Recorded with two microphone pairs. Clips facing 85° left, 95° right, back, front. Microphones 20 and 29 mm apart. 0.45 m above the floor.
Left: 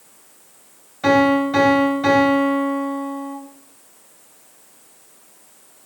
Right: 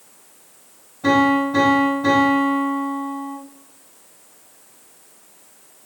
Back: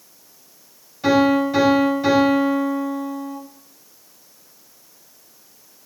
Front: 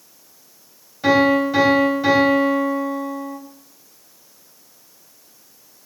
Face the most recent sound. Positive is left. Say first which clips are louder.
# left 1 dB, front 1 dB
turn(degrees=80)